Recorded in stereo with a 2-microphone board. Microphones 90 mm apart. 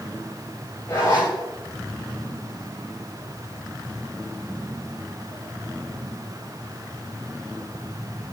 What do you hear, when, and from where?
0.9 s a zipper: 35° left (ahead or behind), 8.5 m